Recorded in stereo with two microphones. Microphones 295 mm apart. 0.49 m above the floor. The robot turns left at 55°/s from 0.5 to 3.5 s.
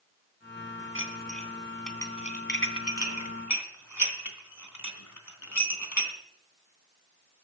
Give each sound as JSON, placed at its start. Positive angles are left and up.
{"t": 0.9, "sound": "dishes clattering", "side_deg": -45, "distance_m": 2.5}